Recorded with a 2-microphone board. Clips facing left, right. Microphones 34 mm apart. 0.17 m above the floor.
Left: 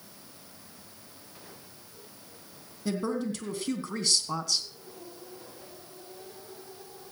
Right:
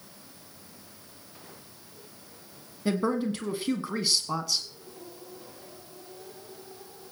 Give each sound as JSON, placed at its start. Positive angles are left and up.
{"t": 2.9, "sound": "a woman speaking", "side_deg": -30, "distance_m": 1.5}